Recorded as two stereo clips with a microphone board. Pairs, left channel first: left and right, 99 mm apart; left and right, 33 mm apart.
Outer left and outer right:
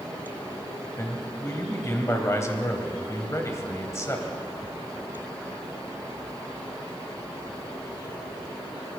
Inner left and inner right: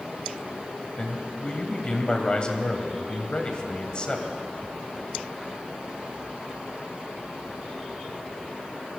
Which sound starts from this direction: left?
A man speaking, at 1.0 s.